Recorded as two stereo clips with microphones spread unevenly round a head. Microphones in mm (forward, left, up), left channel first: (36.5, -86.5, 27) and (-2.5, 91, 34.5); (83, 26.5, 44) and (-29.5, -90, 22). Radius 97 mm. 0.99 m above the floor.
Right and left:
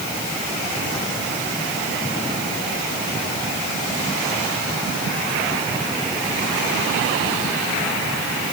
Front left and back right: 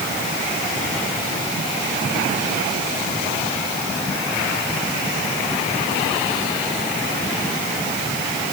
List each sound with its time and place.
Only background noise.